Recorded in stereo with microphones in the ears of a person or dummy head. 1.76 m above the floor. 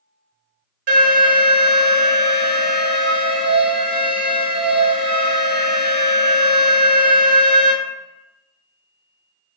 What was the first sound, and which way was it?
An alarm, 65° right (ahead or behind).